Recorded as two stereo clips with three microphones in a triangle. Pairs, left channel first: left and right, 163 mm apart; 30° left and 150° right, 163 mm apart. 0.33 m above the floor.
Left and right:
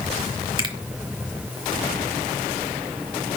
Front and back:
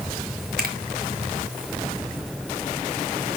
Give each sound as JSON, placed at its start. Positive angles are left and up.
{"t": 0.6, "sound": "a finger snap", "azimuth_deg": -150, "distance_m": 2.5}